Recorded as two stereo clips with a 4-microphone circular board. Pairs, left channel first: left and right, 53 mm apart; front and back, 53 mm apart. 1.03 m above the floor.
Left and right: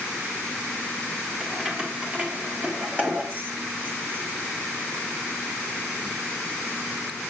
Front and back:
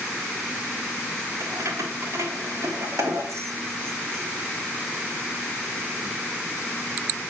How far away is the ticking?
No ticking in this recording.